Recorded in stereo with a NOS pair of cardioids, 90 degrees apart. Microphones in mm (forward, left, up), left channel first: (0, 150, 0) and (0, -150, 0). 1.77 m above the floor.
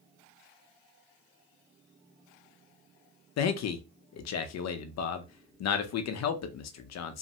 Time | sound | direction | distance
3.4 | a man speaking | 65° left | 0.7 m